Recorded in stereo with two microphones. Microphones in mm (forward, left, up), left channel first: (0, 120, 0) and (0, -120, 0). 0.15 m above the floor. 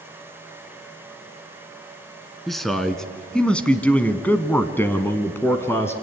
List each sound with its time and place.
2.5 s a man speaking: centre (ahead or behind), 1.6 m; by 5.9 s 10° left (ahead or behind), 1.5 m